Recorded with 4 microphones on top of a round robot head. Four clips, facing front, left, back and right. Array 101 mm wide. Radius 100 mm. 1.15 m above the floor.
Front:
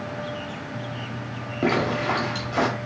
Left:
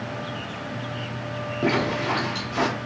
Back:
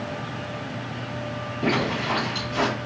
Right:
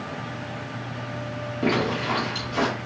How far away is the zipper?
About 1.1 m.